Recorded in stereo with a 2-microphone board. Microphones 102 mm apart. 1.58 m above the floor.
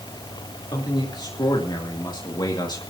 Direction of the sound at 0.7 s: 45° left (ahead or behind).